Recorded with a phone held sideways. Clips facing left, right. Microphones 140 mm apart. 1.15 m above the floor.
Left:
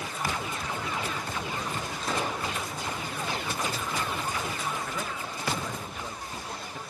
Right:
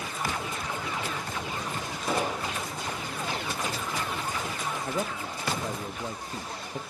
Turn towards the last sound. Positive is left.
turn(degrees=-35)  # may be behind; listen again after turning